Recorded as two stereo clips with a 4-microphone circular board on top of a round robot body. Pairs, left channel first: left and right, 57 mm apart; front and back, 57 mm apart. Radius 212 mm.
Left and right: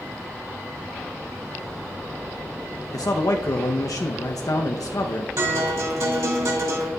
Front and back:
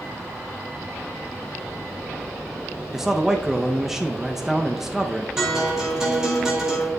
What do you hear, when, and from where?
2.9 s a man speaking: 95° left, 0.7 m
5.4 s a guitar: 105° right, 3 m